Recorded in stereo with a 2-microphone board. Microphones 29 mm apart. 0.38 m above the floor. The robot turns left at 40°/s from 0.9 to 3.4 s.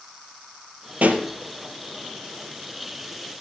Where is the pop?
70° right (ahead or behind), 1.7 m; by 1.2 s 80° right, 1.7 m.